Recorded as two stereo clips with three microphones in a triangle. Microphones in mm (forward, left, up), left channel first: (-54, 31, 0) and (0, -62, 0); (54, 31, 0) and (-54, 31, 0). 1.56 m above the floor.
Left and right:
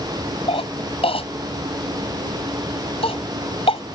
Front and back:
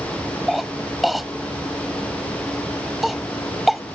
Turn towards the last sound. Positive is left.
turn(degrees=90)